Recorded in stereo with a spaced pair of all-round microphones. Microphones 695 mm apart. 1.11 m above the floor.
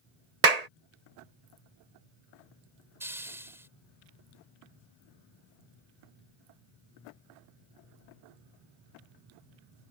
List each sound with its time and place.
0.4 s a clap: 70° right (ahead or behind)
3.0 s a hiss: 5° right (ahead or behind)